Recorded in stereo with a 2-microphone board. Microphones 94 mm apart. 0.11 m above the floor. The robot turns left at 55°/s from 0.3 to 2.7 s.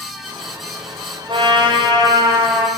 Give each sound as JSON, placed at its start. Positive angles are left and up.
{"t": 1.3, "sound": "a trumpet", "azimuth_deg": -85, "distance_m": 3.5}